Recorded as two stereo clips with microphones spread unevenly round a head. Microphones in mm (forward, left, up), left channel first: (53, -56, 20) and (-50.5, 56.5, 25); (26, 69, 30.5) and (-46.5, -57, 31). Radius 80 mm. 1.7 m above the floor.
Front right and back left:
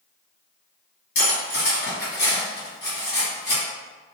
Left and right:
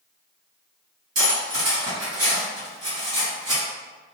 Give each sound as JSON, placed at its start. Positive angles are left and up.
{"t": 1.1, "sound": "cutlery clinking", "azimuth_deg": -60, "distance_m": 1.4}